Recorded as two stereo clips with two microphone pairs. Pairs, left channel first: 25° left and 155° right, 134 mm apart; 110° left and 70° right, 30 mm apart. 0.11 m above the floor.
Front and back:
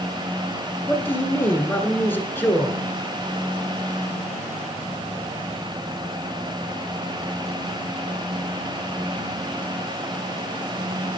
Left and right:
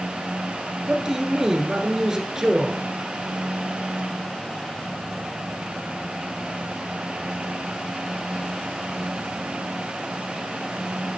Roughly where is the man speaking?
Ahead right.